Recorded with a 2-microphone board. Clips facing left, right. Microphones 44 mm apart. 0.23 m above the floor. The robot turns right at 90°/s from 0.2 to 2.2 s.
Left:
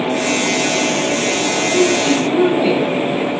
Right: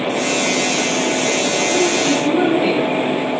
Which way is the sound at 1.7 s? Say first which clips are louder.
Left 4 dB; 115° right.